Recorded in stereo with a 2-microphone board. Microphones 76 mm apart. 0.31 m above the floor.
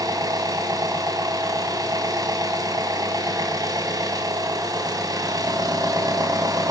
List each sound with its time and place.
0.0 s an engine running: 60° right (ahead or behind), 2 m